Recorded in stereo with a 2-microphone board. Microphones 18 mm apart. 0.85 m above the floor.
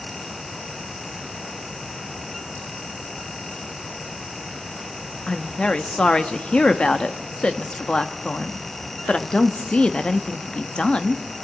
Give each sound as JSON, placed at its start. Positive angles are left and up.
{"t": 5.3, "sound": "a woman speaking", "side_deg": 65, "distance_m": 1.3}